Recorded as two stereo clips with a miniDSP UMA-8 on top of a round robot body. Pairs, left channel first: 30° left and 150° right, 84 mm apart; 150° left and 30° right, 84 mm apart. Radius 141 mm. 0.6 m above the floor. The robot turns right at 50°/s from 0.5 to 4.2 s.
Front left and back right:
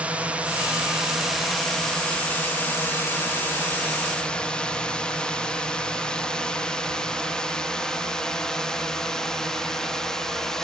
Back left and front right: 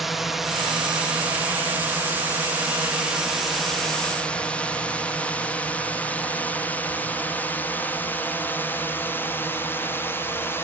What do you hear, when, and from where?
0.0 s a drone: 115° right; by 10.7 s 110° left